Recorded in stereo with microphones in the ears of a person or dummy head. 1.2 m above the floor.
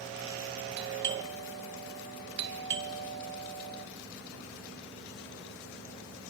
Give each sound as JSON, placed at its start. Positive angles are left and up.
{"t": 0.8, "sound": "a doorbell", "side_deg": -60, "distance_m": 2.0}